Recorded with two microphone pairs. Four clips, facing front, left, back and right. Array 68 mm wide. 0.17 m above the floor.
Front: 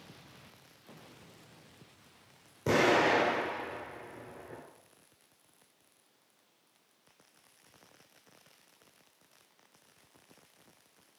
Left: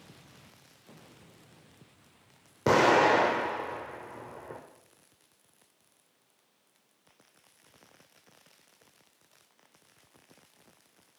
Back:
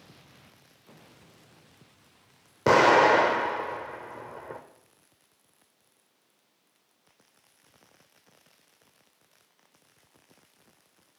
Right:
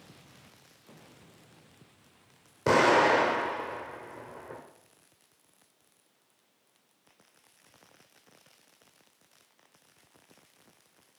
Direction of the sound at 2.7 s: 175° left.